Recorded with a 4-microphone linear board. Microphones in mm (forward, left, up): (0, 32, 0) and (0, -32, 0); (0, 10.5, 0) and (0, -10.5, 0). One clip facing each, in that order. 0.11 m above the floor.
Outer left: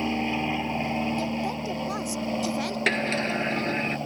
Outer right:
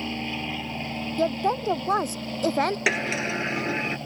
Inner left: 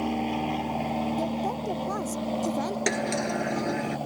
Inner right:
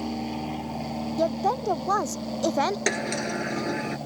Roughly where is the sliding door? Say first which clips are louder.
Even, even; centre.